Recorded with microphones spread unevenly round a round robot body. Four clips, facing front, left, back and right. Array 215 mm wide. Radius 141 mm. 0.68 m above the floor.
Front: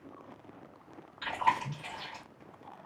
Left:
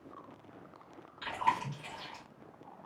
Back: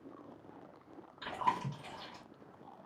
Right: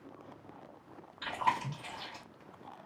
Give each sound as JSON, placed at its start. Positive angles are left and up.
{"t": 1.2, "sound": "chewing", "azimuth_deg": 180, "distance_m": 1.1}